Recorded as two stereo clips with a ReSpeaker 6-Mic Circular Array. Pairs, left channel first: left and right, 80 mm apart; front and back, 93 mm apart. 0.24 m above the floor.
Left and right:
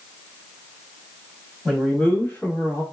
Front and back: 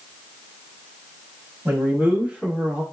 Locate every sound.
1.6 s a man speaking: 165° left, 1.1 m; by 2.8 s 110° left, 1.3 m